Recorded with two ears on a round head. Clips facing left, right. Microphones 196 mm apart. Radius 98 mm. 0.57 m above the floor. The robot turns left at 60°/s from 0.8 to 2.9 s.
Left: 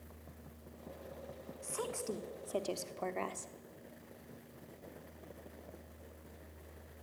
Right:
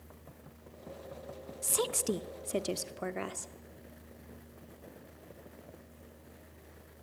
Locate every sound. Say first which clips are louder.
1.6 s a woman speaking: right 7 dB; 85° right, 1.0 m; by 3.5 s 160° right, 1.0 m